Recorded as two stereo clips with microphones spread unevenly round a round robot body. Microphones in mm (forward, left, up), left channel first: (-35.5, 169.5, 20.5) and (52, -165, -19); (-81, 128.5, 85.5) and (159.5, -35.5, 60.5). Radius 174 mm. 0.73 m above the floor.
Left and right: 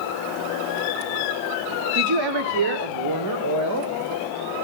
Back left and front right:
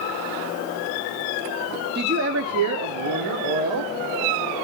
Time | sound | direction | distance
1.9 | a woman speaking | 90° right | 1.8 m